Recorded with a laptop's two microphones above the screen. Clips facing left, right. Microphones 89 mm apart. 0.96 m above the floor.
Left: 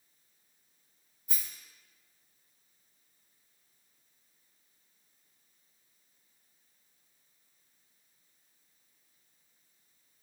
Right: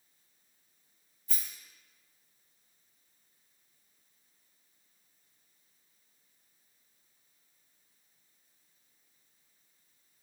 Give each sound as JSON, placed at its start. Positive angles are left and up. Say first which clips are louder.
{"t": 1.3, "sound": "a rattle", "louder": "even", "side_deg": 15, "distance_m": 1.6}